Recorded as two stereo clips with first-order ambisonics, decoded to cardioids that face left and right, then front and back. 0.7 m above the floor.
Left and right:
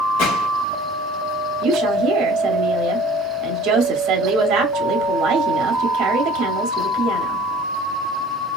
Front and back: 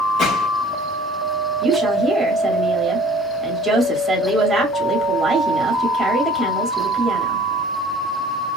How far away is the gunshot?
About 2.5 m.